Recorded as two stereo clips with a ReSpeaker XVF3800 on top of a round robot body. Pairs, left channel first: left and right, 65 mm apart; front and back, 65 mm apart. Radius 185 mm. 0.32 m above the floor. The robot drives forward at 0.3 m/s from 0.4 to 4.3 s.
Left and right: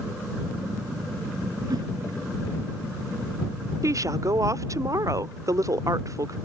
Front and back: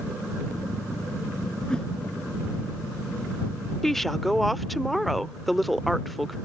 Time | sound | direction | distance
1.7 | a whoosh | 75° right | ?
3.8 | a woman speaking | 85° right | ?